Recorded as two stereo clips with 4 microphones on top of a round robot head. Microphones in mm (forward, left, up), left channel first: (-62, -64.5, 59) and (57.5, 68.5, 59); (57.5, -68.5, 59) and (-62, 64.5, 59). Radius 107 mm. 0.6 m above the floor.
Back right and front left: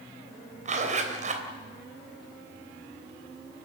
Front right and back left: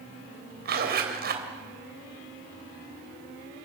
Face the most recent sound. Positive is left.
turn(degrees=100)